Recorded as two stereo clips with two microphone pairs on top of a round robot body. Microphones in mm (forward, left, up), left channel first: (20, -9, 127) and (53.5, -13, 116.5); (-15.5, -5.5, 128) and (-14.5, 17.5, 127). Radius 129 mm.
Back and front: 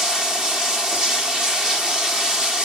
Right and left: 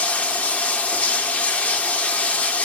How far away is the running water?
About 0.8 m.